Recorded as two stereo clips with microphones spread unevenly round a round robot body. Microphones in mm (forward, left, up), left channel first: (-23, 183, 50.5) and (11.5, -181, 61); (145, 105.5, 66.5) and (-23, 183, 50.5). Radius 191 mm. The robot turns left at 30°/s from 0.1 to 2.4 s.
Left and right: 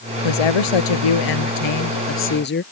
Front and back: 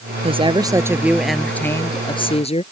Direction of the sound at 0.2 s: 95° left.